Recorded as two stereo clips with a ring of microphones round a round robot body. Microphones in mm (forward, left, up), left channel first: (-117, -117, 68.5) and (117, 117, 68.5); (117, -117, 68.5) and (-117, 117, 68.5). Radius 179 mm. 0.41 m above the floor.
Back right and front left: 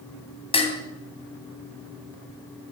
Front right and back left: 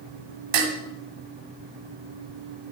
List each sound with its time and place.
0.5 s dishes clattering: 150° left, 2.5 m